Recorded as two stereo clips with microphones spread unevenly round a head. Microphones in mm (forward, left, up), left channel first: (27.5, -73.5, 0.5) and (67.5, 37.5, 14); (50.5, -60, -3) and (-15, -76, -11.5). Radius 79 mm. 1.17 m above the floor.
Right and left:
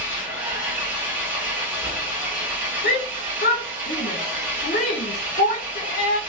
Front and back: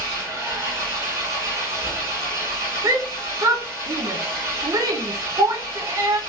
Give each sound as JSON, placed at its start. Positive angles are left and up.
{"t": 0.0, "sound": "an engine running", "azimuth_deg": 140, "distance_m": 1.1}
{"t": 2.8, "sound": "a shout", "azimuth_deg": -130, "distance_m": 0.7}